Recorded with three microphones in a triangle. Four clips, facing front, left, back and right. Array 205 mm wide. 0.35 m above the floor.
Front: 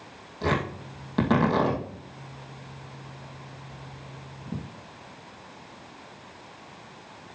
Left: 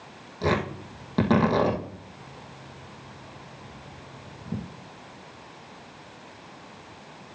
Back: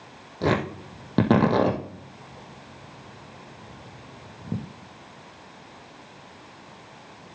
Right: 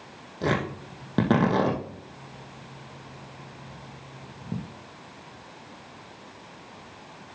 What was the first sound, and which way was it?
Tearing paper, 155° right.